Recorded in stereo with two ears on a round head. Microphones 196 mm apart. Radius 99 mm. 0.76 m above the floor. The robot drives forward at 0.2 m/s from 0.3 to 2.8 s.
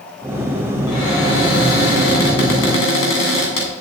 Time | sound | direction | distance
0.9 | a cupboard door | 70° left (ahead or behind) | 3 m